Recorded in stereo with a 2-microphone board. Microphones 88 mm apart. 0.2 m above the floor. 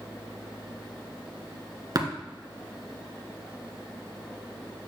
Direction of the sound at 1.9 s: 50° right (ahead or behind).